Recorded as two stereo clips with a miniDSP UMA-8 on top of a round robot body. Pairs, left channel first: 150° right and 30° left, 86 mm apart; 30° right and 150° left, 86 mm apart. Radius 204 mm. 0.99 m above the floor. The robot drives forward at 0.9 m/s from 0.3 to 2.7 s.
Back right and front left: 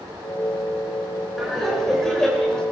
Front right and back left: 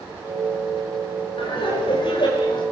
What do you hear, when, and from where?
1.4 s laughter: 60° right, 7 m; by 2.6 s 70° right, 6.5 m